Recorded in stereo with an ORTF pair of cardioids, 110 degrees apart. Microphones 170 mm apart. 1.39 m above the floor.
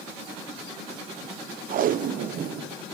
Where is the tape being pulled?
55° right, 0.6 m.